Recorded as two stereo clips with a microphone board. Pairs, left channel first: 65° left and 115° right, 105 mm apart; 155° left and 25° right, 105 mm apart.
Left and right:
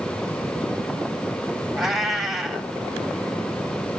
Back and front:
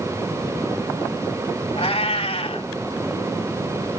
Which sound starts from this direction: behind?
A cat meowing, at 1.8 s.